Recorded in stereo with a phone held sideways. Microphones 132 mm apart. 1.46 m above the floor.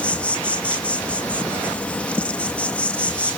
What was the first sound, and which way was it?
An insect, 10° left (ahead or behind).